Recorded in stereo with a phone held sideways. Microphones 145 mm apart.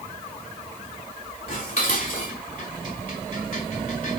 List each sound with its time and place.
1.5 s dishes clattering: 70° left (ahead or behind), 4.5 m